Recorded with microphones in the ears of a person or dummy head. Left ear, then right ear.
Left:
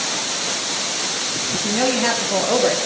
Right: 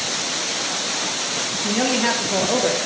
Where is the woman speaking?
5° right (ahead or behind), 1.6 m; by 2.8 s 10° left (ahead or behind), 1.1 m.